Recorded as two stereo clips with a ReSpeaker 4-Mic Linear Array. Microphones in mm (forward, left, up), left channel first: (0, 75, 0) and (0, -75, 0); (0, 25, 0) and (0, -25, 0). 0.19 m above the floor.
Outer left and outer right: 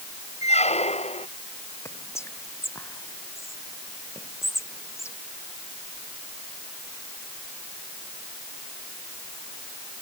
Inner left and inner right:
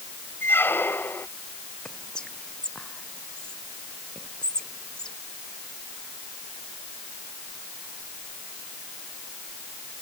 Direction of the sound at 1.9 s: 20° left (ahead or behind).